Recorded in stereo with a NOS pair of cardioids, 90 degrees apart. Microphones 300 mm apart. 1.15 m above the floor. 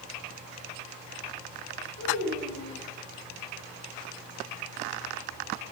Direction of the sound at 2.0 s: 60° left.